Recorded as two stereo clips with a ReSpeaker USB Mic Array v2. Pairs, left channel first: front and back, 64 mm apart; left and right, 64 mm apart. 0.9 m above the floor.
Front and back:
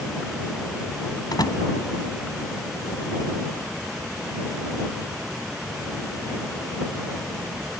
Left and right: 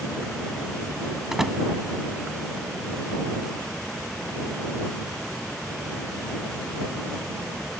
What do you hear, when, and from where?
1.3 s a door slam: 5° right